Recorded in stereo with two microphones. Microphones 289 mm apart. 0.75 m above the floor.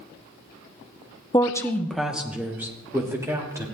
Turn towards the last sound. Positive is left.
turn(degrees=-10)  # may be behind; listen again after turning